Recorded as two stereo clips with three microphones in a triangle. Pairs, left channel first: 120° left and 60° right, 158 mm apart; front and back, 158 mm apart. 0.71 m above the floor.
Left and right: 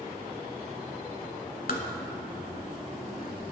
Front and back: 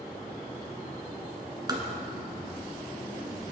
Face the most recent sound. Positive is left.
turn(degrees=120)